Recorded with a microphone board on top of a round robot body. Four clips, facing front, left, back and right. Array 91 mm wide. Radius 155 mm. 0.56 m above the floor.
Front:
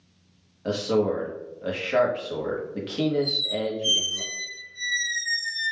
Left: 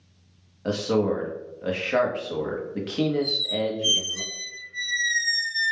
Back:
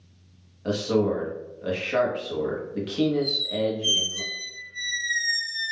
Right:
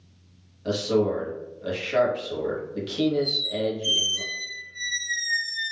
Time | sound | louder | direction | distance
0.7 | a man speaking | even, even | 80° left | 1.0 m
3.2 | a squeak | even, back 2 dB | 95° left | 0.6 m